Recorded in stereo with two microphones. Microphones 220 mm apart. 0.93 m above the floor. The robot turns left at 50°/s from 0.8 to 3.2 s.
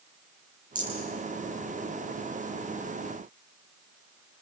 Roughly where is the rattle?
Right.